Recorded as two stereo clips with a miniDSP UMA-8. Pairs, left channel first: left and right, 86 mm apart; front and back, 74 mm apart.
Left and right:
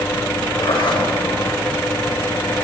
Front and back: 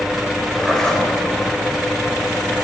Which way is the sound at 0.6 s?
80° left.